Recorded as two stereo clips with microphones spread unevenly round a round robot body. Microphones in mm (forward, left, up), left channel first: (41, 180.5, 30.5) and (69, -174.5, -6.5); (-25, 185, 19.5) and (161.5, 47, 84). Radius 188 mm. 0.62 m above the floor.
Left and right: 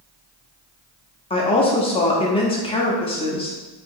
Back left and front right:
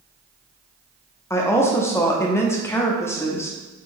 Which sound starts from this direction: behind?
A woman speaking, at 1.3 s.